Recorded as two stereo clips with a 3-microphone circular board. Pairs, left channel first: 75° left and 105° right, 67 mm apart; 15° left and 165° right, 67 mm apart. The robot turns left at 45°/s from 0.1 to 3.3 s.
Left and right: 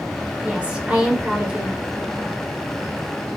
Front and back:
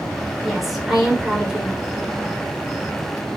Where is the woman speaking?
75° right, 0.8 m; by 1.8 s 135° right, 0.8 m.